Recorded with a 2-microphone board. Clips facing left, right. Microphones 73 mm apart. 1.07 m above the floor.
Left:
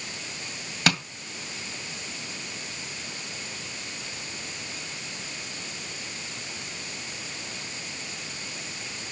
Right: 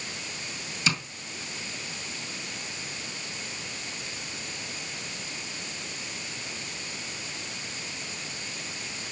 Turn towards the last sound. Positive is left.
turn(degrees=65)  # may be behind; listen again after turning